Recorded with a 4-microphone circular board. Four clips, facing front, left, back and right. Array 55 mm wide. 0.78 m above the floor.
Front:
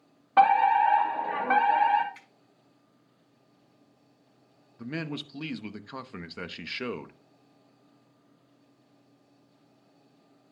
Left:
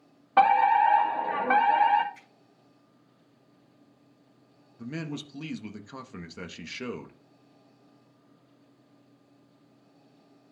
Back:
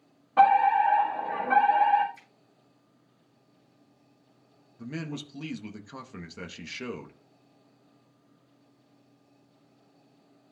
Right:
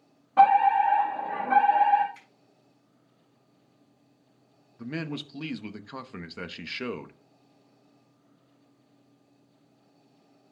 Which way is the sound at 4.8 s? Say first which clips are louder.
Right 2 dB, front 2 dB; 40° right.